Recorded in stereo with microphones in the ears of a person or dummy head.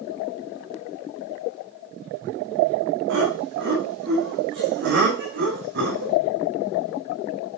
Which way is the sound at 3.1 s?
65° right (ahead or behind).